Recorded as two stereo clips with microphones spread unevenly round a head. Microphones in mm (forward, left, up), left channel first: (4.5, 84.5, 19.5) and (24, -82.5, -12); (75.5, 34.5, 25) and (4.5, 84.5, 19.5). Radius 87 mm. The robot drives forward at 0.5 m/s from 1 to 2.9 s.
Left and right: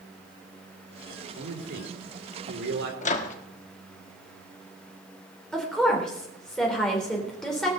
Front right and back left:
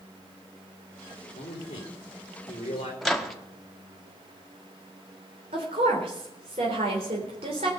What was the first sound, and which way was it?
A man speaking, 65° right.